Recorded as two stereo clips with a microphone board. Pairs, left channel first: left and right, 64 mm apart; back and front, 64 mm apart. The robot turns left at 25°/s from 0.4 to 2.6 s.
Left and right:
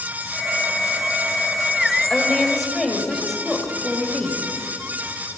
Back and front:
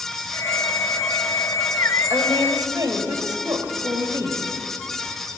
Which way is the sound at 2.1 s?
15° left.